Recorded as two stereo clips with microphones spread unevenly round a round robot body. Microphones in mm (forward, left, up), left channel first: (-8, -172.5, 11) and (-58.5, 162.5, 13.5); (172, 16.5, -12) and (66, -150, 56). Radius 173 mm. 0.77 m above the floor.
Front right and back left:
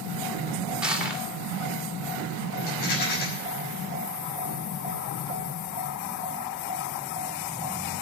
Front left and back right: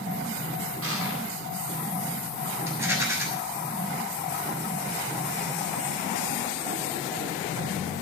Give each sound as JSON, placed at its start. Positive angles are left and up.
{"t": 0.8, "sound": "crushing", "azimuth_deg": -175, "distance_m": 2.0}
{"t": 2.7, "sound": "a rattle", "azimuth_deg": -40, "distance_m": 6.5}